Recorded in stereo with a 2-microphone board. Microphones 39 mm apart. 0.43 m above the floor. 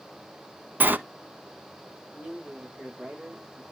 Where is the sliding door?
50° right (ahead or behind), 0.6 m.